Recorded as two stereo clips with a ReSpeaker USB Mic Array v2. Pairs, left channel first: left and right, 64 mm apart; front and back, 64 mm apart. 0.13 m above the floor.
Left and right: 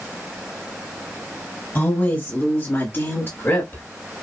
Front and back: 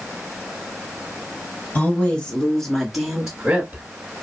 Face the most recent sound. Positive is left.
turn(degrees=120)